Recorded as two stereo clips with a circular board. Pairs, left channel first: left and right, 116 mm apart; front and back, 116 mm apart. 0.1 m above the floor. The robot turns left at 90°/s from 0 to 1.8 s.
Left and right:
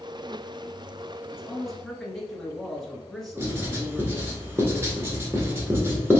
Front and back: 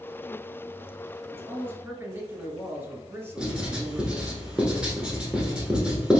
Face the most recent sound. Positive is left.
turn(degrees=-110)